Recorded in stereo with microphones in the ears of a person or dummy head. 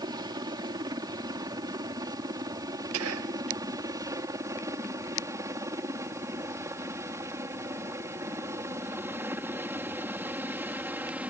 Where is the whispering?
80° right.